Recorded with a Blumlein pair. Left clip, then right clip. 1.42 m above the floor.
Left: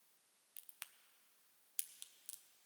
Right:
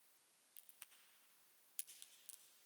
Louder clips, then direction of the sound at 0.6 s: Left 8 dB; 20° left.